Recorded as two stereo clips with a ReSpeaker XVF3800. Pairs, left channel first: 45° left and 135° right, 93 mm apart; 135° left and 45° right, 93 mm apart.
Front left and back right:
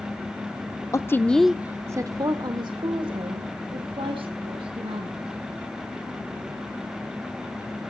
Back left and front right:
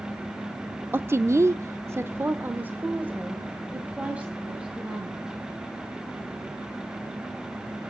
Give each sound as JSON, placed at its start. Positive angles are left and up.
{"t": 0.9, "sound": "a woman speaking", "azimuth_deg": 10, "distance_m": 0.8}